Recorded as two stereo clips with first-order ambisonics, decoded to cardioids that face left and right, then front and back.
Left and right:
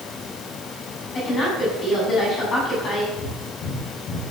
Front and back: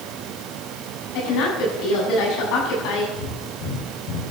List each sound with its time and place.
1.1 s a woman speaking: 25° left, 7.5 m
3.1 s breathing: 35° left, 6.5 m